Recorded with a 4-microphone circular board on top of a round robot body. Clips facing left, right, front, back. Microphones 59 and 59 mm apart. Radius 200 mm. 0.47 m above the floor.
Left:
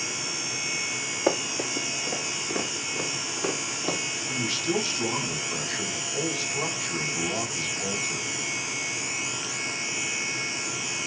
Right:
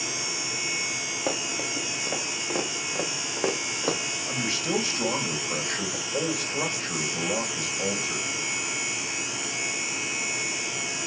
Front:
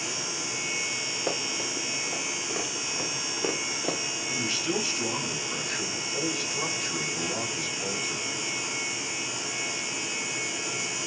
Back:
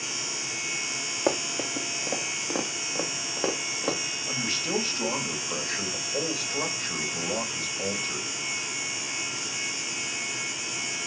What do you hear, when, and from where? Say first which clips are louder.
1.3 s running footsteps: left 5 dB, back 6 dB; 175° left, 1.6 m; by 4.0 s 135° right, 3.5 m
4.3 s a man speaking: even, front 1 dB; 135° right, 4 m